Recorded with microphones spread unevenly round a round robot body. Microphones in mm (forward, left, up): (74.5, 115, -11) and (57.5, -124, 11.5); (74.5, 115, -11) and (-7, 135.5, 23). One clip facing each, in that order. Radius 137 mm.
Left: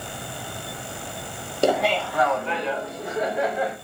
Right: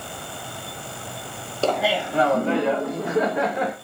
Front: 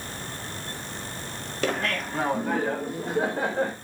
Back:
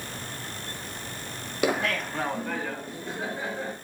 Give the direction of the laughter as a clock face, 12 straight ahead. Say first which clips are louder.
Left 1 dB, back 1 dB; 10 o'clock.